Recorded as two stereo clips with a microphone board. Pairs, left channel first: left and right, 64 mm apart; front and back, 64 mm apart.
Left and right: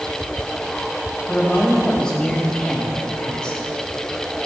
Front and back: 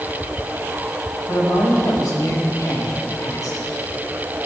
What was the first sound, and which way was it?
A man speaking, 15° left.